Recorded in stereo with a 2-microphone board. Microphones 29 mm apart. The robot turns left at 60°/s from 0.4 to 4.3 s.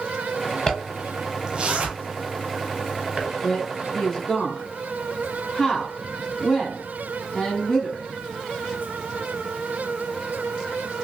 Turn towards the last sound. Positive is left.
turn(degrees=20)  # may be behind; listen again after turning